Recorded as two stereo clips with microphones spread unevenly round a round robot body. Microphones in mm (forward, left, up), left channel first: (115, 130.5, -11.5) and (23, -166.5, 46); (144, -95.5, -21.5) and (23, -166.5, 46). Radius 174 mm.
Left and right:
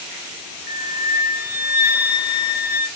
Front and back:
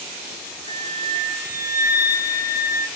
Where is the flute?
60° left, 0.7 m.